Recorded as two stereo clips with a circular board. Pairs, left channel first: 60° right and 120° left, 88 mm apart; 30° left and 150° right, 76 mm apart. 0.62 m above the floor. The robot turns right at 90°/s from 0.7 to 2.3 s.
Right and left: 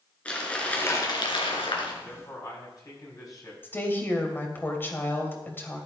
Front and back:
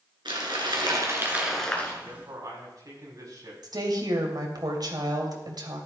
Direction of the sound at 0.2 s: 135° right.